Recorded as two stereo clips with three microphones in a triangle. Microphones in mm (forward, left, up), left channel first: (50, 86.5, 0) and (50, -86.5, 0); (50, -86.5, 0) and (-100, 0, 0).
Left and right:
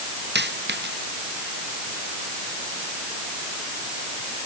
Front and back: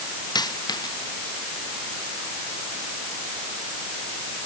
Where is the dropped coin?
95° right.